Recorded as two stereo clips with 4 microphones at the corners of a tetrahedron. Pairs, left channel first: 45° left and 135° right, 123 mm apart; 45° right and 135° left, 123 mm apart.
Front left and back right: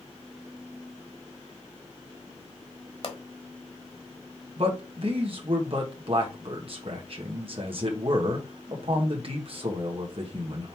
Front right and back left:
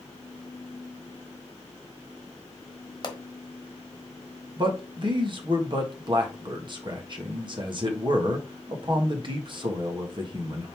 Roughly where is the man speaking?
Behind.